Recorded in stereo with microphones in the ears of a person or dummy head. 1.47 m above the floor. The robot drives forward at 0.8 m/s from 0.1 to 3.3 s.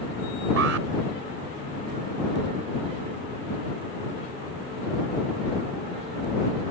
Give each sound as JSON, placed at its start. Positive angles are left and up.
{"t": 0.6, "sound": "an alarm", "side_deg": -85}